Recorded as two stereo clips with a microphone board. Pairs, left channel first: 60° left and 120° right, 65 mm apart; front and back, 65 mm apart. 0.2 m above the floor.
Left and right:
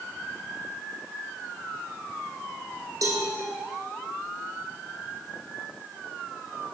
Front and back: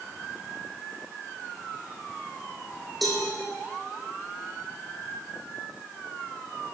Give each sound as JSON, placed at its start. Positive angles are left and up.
{"t": 3.0, "sound": "a cowbell", "azimuth_deg": -90, "distance_m": 3.0}